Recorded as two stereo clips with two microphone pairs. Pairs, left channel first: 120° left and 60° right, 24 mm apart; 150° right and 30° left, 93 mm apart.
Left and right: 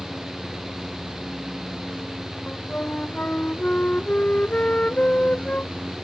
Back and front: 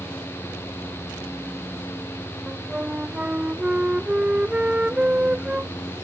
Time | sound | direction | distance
2.5 | a flute | 110° left | ?